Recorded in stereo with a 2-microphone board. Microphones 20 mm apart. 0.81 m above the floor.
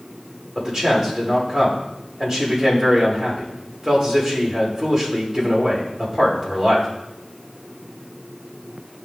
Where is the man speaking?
30° right (ahead or behind), 3 m.